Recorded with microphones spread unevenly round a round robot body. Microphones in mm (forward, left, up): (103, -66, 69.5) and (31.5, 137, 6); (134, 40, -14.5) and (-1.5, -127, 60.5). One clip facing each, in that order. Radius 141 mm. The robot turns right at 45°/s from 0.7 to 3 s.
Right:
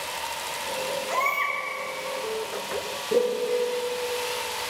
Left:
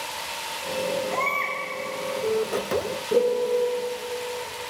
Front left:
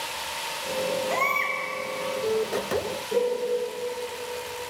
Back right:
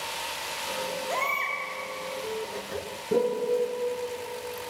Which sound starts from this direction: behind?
A piano, at 3.1 s.